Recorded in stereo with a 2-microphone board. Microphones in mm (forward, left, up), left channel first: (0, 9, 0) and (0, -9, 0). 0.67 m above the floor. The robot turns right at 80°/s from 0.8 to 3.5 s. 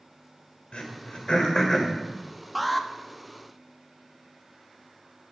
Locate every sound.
0.7 s throat clearing: 70° left (ahead or behind), 1.9 m; by 1.9 s 15° left (ahead or behind), 1.9 m
2.5 s an alarm: 5° right (ahead or behind), 0.7 m; by 2.9 s 5° left (ahead or behind), 0.7 m